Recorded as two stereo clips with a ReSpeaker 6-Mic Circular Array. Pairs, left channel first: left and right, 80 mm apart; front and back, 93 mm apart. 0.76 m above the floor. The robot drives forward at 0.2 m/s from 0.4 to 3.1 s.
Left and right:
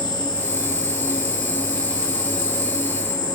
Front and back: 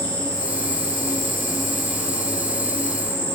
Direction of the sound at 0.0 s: 70° left.